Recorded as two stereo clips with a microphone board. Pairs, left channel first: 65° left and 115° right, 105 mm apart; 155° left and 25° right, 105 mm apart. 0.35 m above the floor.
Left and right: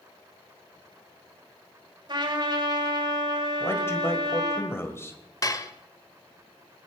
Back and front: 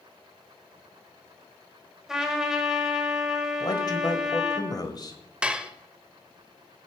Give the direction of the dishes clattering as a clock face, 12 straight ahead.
10 o'clock.